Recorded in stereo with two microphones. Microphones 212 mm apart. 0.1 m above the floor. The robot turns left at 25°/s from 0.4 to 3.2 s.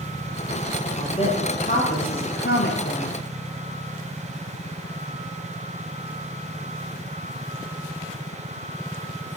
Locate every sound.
1.0 s a woman speaking: 150° left, 2 m; by 3.2 s 95° left, 2 m